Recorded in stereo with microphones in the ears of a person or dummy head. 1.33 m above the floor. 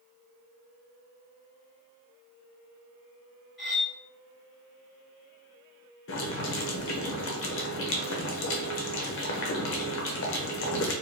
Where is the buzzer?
No buzzer in this recording.